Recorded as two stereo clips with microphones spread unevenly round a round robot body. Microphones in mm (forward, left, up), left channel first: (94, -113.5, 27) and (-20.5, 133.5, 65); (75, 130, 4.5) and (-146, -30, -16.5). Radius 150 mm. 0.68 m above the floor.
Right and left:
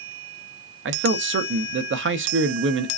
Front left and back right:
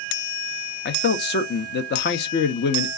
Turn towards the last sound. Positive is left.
turn(degrees=75)